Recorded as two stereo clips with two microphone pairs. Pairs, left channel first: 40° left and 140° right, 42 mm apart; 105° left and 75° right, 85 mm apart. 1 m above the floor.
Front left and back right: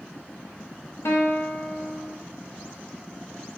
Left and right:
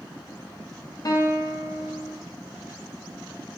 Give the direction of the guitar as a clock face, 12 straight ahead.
10 o'clock.